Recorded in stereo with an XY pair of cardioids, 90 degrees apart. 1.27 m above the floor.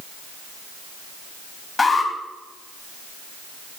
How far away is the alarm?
About 3.5 m.